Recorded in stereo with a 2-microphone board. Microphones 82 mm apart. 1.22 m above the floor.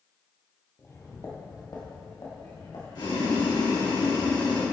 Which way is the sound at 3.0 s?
85° left.